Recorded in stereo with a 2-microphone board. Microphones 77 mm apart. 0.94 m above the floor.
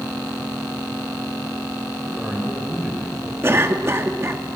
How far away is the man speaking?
About 3.5 m.